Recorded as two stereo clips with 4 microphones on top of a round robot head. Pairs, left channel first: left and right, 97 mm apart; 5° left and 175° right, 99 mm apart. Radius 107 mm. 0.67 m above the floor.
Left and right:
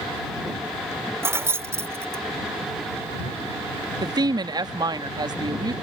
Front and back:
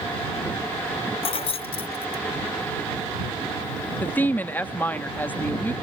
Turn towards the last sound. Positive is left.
turn(degrees=-60)